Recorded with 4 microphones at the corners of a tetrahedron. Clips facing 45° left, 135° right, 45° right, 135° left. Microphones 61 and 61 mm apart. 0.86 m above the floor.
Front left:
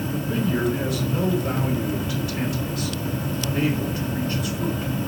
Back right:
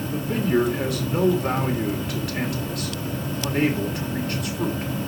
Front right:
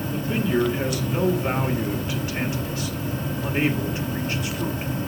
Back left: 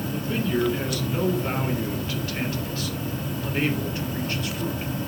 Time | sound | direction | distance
0.1 | a man speaking | 115° right | 3 m